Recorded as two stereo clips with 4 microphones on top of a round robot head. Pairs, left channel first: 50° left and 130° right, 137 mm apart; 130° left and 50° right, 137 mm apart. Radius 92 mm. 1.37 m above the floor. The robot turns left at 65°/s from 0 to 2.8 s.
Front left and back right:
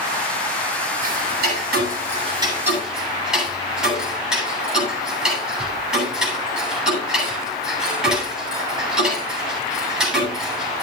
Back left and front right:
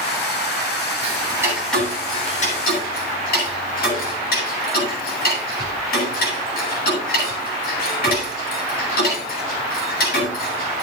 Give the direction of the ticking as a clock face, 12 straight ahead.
3 o'clock.